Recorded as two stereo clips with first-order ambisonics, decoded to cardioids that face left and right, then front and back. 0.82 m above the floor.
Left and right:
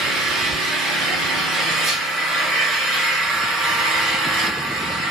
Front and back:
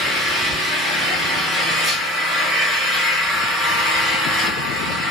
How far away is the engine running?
About 1.8 m.